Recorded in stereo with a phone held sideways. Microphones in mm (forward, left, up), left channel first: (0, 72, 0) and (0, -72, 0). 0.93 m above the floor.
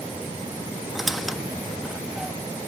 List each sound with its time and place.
0.9 s a squeak: centre (ahead or behind), 0.8 m